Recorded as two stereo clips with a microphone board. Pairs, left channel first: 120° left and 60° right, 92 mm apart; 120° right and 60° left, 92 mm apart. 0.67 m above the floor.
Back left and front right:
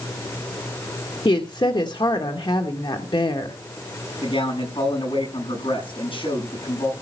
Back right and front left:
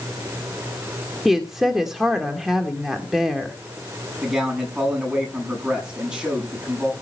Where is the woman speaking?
145° left, 1.7 m.